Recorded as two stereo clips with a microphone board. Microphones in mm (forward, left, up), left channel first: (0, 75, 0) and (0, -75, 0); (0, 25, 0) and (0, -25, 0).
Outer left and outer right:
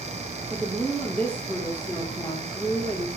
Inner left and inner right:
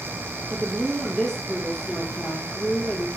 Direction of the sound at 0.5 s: 5° left (ahead or behind).